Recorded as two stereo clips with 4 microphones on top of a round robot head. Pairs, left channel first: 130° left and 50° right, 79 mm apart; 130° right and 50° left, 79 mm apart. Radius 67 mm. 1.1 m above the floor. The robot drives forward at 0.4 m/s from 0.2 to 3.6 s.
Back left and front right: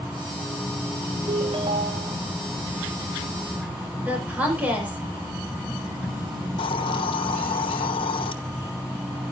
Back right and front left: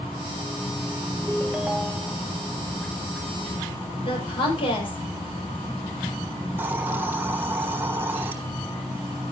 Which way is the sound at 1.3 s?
25° right.